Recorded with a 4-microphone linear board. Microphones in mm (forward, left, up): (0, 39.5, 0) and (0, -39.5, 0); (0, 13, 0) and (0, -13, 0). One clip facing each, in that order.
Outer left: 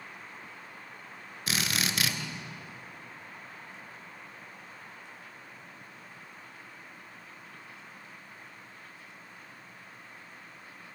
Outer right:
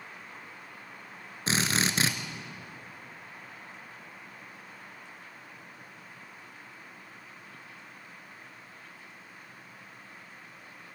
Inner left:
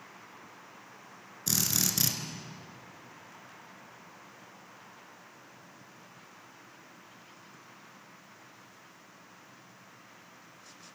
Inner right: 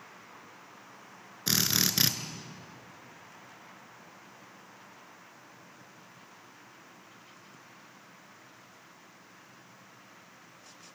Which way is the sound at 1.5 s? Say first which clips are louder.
Outer right 3 dB, inner right 3 dB; 30° right (ahead or behind).